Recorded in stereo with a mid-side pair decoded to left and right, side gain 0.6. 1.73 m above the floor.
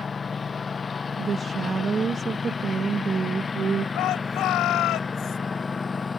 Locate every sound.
0.0 s a lawn mower: 30° left; by 6.2 s 25° left
1.2 s a woman speaking: 30° right
4.0 s a shout: 60° left